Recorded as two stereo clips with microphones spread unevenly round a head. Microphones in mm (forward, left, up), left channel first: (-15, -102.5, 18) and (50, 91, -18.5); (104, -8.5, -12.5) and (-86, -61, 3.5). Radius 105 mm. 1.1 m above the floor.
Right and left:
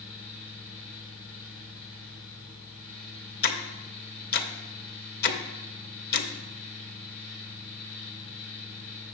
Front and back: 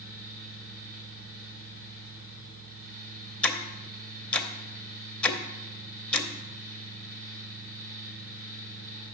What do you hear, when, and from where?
0.0 s a fan: 155° right, 2 m
3.4 s ticking: 70° right, 0.7 m